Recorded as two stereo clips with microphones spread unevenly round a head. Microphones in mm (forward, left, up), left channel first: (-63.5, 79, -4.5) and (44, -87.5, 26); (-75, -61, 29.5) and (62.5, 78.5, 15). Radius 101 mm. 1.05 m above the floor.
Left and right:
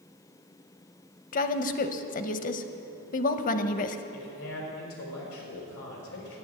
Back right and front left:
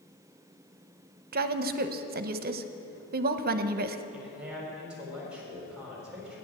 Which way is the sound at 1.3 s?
80° left.